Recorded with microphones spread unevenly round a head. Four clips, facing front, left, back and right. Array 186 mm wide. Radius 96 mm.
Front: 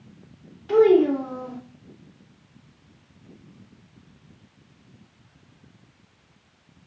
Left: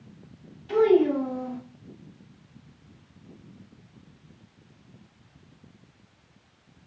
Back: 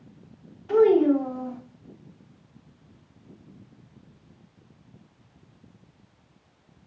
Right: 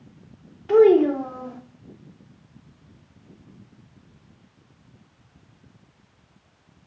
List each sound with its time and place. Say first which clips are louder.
0.7 s a child speaking: right 5 dB, front 2 dB; 65° right, 2.5 m